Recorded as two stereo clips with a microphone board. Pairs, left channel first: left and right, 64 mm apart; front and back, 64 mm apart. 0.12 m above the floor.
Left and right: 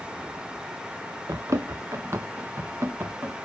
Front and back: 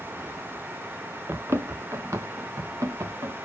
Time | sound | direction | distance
1.3 | running footsteps | 125° right | 1.0 m